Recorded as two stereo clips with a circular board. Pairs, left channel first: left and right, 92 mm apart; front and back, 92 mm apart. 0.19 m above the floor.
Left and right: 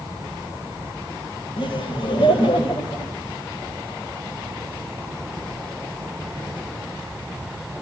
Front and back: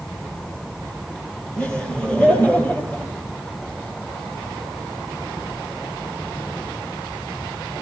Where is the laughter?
80° left, 5 m; by 3.1 s 75° left, 5.5 m.